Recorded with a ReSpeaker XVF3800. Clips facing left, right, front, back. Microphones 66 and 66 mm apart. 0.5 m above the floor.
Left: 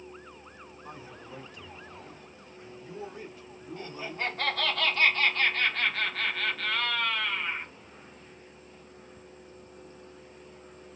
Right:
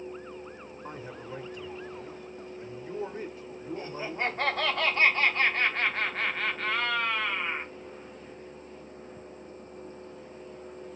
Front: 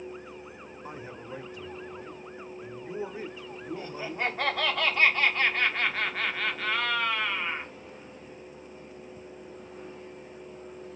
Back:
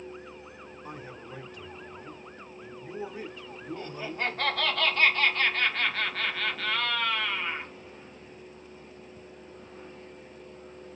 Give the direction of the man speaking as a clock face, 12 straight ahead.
2 o'clock.